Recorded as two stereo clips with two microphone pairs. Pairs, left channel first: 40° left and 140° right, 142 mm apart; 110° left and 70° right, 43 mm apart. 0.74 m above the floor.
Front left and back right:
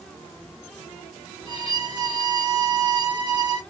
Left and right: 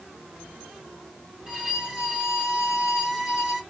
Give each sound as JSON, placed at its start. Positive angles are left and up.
{"t": 1.5, "sound": "a violin", "azimuth_deg": 5, "distance_m": 1.3}